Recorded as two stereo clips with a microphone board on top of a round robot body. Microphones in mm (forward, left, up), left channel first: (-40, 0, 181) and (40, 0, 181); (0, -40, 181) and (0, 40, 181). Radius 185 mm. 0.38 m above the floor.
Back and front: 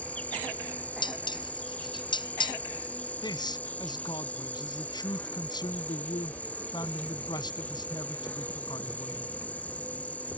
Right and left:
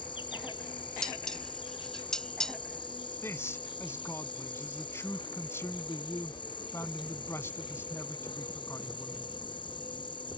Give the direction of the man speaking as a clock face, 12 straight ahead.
5 o'clock.